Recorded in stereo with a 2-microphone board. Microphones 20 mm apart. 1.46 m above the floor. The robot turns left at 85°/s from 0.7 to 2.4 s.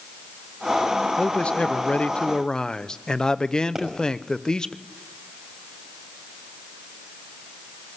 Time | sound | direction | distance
1.2 | a man speaking | 145° left | 0.8 m
3.8 | a pop | 10° right (ahead or behind) | 6 m